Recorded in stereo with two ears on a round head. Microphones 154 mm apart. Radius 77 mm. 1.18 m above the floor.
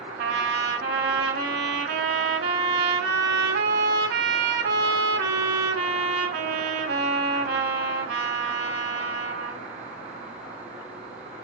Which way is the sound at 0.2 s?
60° right (ahead or behind).